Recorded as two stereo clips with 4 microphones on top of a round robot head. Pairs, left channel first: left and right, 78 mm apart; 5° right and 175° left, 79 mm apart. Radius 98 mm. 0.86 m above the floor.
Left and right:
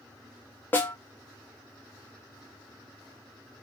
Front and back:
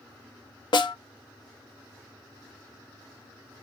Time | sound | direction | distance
0.7 | a snare drum | 20° left | 0.7 m